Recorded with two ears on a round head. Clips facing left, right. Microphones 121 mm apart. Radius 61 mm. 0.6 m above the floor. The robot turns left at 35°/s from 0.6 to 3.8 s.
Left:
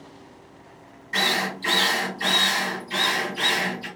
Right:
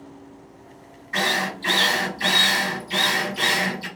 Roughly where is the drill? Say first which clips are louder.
Right 1 dB; ahead left.